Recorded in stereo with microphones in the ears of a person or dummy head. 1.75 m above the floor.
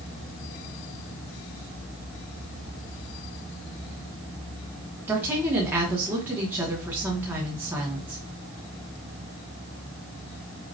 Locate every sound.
5.1 s a woman speaking: 5° right (ahead or behind), 1.0 m